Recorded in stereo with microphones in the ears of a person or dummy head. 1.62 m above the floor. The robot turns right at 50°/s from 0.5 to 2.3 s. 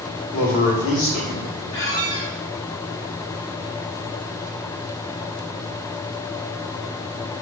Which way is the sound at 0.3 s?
55° left.